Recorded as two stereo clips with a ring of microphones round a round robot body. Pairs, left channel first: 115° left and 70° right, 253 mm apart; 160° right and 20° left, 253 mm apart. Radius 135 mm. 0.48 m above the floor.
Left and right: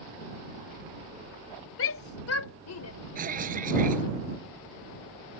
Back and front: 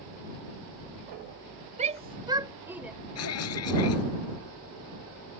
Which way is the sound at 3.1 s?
125° right.